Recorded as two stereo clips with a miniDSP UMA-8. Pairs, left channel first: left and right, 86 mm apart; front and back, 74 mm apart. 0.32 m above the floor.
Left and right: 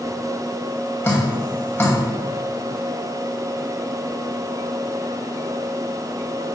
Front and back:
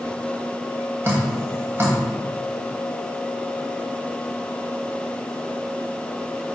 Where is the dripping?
135° left, 2 m.